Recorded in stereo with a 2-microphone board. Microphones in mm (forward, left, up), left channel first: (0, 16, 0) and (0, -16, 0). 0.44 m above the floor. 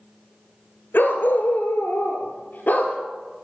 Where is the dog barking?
85° left, 1.8 m; by 3.0 s 50° left (ahead or behind), 2 m.